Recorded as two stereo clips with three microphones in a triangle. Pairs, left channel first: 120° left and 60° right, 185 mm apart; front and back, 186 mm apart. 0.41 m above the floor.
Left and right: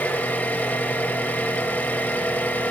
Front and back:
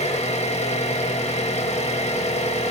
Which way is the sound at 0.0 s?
40° left.